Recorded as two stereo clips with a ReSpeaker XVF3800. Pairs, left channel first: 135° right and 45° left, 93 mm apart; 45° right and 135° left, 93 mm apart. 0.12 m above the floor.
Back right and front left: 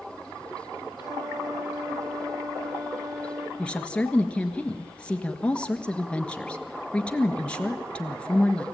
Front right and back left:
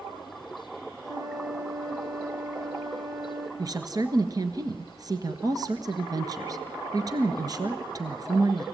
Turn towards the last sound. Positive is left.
turn(degrees=150)